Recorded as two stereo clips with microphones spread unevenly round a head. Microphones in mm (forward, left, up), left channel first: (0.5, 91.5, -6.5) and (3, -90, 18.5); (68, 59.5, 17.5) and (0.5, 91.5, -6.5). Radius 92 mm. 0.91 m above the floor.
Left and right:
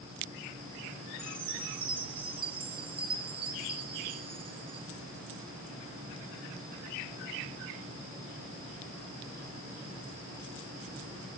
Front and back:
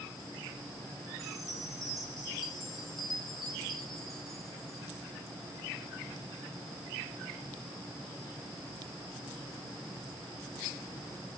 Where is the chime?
140° right, 1.0 m.